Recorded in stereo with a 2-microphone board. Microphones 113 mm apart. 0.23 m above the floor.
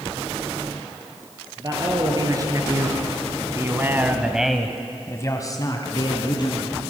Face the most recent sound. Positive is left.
turn(degrees=40)  # may be behind; listen again after turning